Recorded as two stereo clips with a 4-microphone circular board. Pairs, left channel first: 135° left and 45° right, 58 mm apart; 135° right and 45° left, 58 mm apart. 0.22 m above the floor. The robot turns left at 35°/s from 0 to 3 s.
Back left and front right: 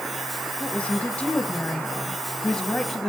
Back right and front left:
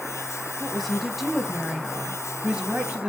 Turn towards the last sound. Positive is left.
turn(degrees=60)